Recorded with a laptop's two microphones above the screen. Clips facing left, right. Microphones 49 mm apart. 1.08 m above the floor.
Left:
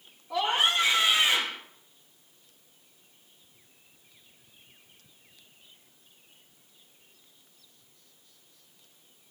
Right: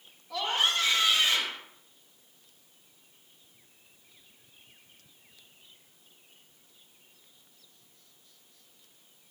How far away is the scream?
About 1.8 m.